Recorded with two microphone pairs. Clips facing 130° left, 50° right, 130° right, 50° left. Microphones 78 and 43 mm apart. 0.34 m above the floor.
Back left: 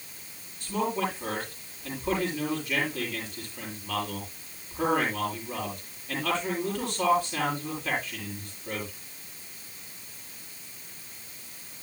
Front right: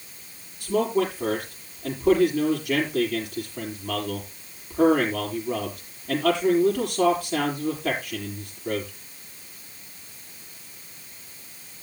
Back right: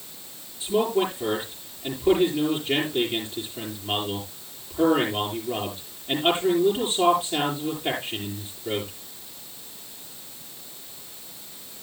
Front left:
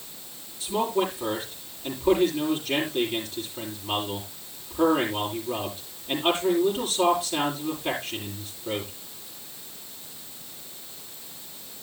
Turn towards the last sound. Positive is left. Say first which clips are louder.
# front right 6 dB, back right 2 dB
turn(degrees=-70)